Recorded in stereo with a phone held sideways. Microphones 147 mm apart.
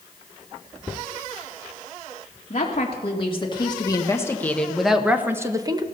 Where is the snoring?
I don't hear snoring.